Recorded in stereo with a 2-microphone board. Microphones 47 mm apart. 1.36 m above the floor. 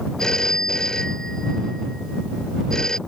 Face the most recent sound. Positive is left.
turn(degrees=10)  # may be behind; listen again after turning